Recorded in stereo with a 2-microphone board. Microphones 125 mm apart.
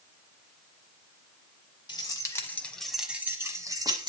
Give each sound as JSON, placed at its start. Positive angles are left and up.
{"t": 1.9, "sound": "keys jangling", "side_deg": 35, "distance_m": 1.0}